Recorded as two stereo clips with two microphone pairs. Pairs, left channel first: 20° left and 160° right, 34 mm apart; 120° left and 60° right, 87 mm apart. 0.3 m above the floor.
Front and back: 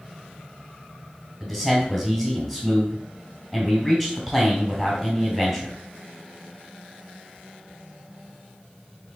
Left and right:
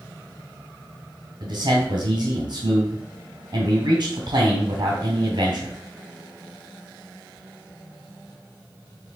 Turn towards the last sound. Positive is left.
turn(degrees=-55)